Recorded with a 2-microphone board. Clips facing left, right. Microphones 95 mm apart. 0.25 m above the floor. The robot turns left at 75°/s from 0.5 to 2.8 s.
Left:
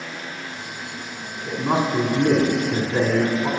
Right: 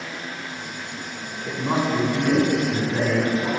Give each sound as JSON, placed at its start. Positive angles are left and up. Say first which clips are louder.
{"t": 1.5, "sound": "a man speaking", "louder": "left 1 dB", "azimuth_deg": 170, "distance_m": 1.6}